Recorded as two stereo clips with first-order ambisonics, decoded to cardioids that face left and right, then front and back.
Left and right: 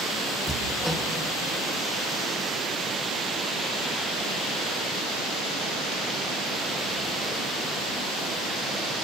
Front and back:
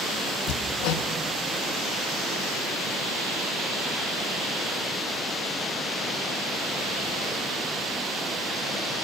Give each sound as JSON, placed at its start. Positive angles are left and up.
{"t": 0.5, "sound": "hammering", "azimuth_deg": 0, "distance_m": 1.2}